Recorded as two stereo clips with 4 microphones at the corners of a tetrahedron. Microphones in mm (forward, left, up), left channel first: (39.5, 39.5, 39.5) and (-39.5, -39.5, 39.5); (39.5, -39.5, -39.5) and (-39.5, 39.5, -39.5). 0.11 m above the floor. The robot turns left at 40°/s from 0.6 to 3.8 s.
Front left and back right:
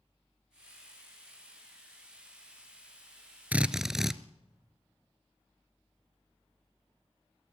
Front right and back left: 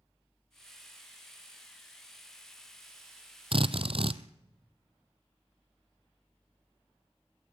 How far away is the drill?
About 0.8 m.